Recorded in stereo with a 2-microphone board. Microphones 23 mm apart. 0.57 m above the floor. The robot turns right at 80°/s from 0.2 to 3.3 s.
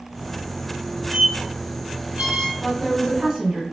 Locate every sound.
1.1 s a squeak: 15° right (ahead or behind), 1.4 m; by 2.5 s 45° right (ahead or behind), 1.4 m
2.6 s a woman speaking: 160° left, 1.8 m; by 3.6 s 145° right, 1.8 m